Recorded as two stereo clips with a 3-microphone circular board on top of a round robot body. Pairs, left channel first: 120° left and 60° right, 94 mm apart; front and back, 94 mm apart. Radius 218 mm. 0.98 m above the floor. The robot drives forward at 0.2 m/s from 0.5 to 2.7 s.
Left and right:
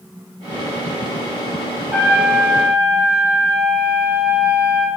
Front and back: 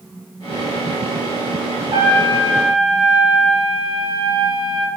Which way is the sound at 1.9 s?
135° right.